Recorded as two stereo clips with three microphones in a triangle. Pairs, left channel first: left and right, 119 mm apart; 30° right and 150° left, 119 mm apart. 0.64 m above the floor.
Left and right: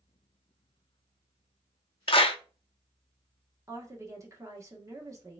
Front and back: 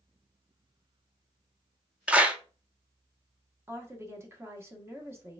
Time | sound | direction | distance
2.1 | a clap | 75° left | 0.6 m
3.7 | a woman speaking | 145° right | 1.1 m